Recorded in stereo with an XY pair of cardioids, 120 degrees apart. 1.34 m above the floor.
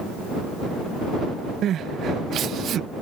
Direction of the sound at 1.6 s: 55° right.